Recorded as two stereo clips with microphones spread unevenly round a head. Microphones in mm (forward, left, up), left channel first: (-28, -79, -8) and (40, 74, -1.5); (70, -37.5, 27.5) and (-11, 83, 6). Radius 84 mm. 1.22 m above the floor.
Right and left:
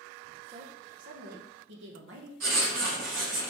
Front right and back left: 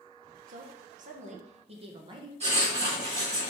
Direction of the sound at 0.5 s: 120° left.